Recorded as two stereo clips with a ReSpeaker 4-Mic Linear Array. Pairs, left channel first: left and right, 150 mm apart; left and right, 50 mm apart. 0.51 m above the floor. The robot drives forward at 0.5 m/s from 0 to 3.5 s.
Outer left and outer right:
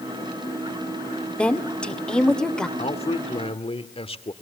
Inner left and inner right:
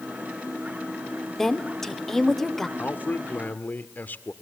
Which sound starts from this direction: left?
A man speaking, at 2.8 s.